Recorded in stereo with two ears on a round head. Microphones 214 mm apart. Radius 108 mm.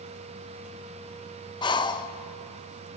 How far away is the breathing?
About 0.7 m.